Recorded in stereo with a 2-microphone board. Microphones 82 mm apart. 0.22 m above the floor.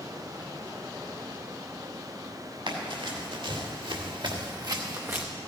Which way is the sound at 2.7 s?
85° right.